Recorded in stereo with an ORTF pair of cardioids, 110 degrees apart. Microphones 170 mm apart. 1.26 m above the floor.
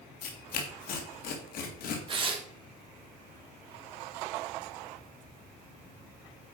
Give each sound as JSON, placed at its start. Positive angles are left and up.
{"t": 0.2, "sound": "tearing paper", "azimuth_deg": 60, "distance_m": 2.0}
{"t": 2.1, "sound": "tearing paper", "azimuth_deg": -30, "distance_m": 1.9}